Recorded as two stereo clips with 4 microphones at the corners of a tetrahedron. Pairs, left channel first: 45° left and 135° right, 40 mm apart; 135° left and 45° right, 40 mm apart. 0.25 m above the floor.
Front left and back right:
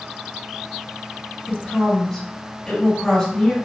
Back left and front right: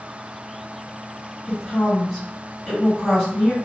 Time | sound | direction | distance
1.5 | a woman speaking | 80° left | 1.5 m